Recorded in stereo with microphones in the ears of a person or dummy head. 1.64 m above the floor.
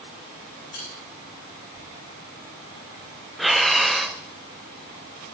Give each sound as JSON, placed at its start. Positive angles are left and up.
{"t": 0.7, "sound": "a bell", "side_deg": 55, "distance_m": 6.5}
{"t": 3.4, "sound": "breathing", "side_deg": 0, "distance_m": 0.7}